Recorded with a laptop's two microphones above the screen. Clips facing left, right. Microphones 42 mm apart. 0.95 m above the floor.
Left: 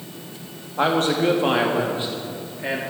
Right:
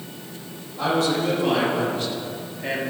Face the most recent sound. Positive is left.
turn(degrees=5)  # may be behind; listen again after turning